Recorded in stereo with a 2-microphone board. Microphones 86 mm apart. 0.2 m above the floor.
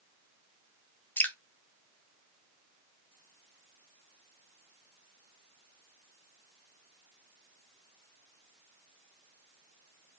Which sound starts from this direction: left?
Dripping, at 1.2 s.